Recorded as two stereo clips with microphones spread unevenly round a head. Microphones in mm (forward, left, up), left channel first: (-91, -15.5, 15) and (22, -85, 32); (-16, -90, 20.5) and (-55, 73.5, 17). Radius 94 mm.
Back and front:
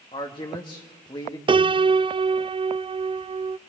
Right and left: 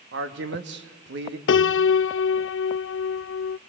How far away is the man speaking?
About 2 m.